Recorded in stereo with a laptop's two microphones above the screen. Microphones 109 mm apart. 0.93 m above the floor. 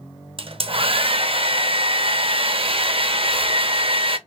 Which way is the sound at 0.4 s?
55° right (ahead or behind).